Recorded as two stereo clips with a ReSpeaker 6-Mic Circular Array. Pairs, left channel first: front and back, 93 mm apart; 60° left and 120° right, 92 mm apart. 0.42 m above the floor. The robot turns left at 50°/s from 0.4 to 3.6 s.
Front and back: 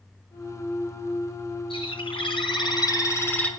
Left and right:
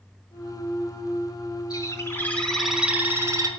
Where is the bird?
15° left, 4 m; by 3.5 s 75° right, 4 m.